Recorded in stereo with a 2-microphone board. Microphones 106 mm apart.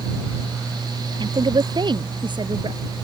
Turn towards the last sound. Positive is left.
turn(degrees=-45)  # may be behind; listen again after turning